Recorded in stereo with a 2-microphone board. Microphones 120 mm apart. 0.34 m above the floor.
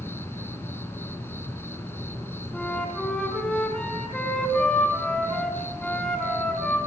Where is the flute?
10° left (ahead or behind), 4.5 m.